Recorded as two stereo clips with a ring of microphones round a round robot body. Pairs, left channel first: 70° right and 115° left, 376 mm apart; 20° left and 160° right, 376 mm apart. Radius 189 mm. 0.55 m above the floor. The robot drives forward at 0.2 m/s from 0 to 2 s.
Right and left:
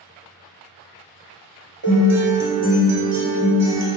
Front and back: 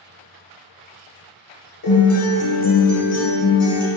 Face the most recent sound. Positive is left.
turn(degrees=65)